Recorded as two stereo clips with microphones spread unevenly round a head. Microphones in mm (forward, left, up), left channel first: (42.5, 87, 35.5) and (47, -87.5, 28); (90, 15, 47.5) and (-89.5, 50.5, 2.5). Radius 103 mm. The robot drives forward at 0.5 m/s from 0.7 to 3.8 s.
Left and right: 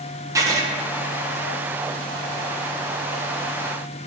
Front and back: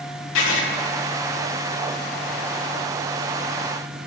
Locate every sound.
0.3 s writing: 15° right, 1.0 m